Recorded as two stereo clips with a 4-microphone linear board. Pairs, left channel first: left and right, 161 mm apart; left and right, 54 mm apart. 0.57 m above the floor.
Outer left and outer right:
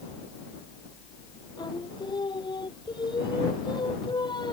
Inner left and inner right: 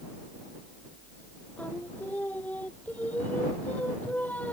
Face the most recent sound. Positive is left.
turn(degrees=30)  # may be behind; listen again after turning